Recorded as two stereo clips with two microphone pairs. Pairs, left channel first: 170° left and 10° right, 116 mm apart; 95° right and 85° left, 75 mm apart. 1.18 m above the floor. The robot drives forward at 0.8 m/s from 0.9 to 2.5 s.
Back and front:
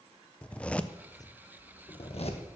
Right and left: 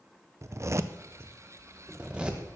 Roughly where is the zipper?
Left.